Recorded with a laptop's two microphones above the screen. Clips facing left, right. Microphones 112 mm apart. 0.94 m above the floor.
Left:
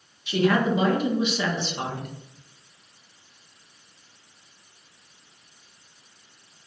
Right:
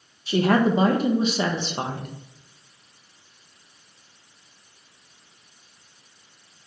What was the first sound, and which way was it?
A woman speaking, 40° right (ahead or behind).